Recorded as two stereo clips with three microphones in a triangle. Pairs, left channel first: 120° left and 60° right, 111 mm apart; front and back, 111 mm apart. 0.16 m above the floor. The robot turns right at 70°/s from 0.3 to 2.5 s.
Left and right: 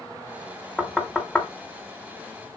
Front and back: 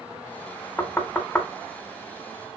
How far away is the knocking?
About 1.3 m.